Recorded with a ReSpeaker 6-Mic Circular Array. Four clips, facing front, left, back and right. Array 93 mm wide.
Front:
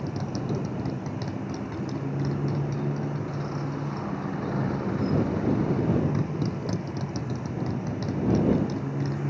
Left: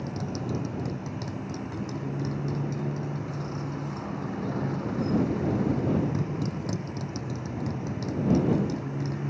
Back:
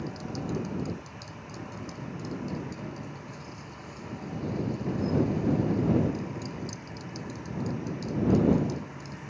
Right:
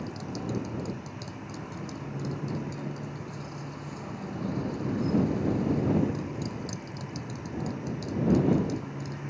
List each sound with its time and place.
0.0 s a motorcycle: 20° left